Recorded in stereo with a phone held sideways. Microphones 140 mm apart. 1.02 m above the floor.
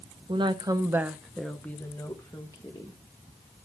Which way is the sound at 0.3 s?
40° right (ahead or behind).